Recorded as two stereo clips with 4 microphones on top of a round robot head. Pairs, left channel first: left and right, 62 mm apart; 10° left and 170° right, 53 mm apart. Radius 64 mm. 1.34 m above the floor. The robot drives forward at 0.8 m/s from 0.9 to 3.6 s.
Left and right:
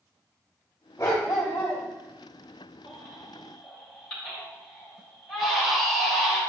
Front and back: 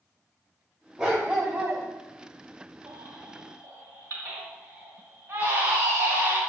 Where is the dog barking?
125° left, 1.1 m; by 1.8 s 160° left, 1.5 m.